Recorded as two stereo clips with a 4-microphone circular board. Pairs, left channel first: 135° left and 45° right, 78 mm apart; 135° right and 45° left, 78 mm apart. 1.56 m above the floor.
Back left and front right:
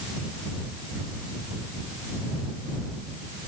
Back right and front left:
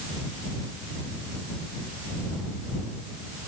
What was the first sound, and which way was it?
Only background noise.